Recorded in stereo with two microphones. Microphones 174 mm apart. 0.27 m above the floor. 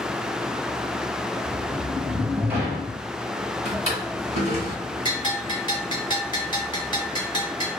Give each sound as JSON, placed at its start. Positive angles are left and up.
{"t": 1.4, "sound": "a sliding door", "side_deg": -15, "distance_m": 1.1}
{"t": 3.6, "sound": "a drawer", "side_deg": -40, "distance_m": 1.7}
{"t": 5.0, "sound": "a bell", "side_deg": 30, "distance_m": 1.4}